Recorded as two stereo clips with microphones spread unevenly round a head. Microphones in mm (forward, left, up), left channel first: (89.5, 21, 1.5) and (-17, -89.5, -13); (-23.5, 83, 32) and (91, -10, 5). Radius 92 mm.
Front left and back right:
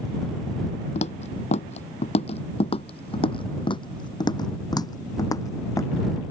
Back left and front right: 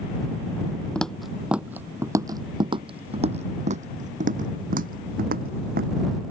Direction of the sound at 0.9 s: 70° left.